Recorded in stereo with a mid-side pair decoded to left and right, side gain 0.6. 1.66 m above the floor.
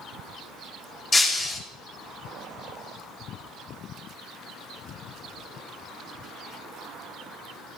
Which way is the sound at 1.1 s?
25° left.